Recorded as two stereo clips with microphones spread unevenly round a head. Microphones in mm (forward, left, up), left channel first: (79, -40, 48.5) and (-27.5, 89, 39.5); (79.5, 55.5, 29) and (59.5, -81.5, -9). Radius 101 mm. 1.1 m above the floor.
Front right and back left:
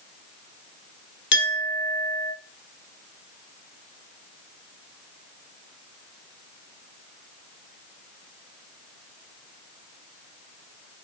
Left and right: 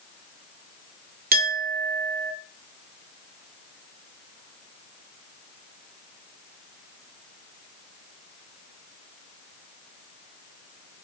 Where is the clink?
80° right, 2 m.